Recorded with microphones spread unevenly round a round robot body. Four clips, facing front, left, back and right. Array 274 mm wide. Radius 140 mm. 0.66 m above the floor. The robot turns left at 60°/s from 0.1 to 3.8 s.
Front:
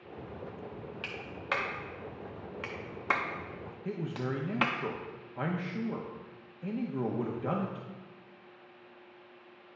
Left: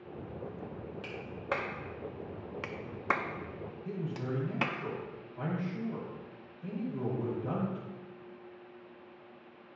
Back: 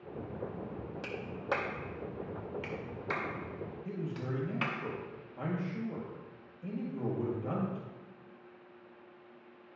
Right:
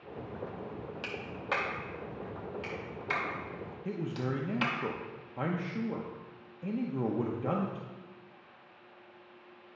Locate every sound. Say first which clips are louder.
1.0 s a clap: left 1 dB, back 2 dB; 175° right, 0.7 m; by 4.8 s 20° left, 0.7 m
3.9 s a man speaking: right 2 dB, front 5 dB; 60° right, 0.8 m